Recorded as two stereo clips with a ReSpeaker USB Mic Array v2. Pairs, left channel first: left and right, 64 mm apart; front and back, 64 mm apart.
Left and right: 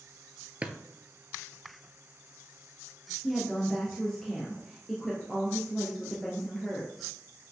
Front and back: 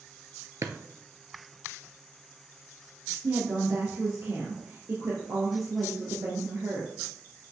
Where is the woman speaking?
175° left, 1.6 m.